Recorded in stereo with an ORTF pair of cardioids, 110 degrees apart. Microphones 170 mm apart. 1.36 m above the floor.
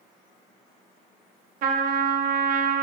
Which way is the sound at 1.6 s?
60° right.